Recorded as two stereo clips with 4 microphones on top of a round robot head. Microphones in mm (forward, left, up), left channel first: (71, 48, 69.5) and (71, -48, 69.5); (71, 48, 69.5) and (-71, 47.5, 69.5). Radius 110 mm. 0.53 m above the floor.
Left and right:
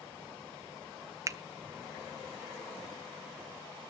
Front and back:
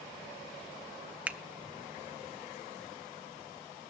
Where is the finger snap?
110° right, 0.7 m.